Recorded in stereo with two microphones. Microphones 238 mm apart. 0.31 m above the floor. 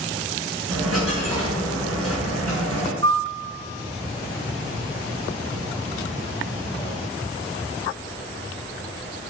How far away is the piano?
About 0.7 m.